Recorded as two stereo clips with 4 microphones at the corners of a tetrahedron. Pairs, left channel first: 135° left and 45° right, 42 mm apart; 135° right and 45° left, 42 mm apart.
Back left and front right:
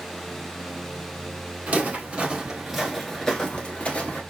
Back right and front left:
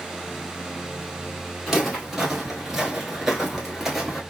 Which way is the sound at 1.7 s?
30° right.